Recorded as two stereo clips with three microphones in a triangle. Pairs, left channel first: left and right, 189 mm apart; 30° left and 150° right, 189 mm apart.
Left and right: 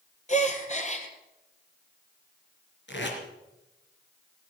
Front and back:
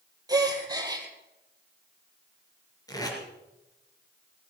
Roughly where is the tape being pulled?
Left.